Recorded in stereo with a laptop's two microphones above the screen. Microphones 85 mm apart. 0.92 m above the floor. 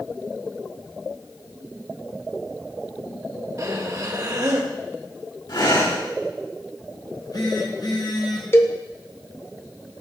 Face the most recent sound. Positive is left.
turn(degrees=30)  # may be behind; listen again after turning